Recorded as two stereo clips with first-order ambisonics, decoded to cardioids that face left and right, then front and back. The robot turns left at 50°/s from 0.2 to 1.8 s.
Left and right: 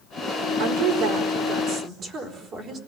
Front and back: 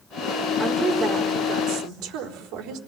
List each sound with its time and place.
0.6 s a woman speaking: 85° right, 4.5 m; by 2.8 s 145° right, 4.5 m